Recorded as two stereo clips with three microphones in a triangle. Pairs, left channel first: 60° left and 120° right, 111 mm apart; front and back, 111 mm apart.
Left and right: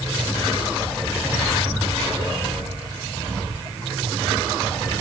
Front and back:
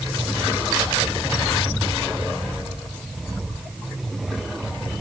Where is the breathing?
I don't hear breathing.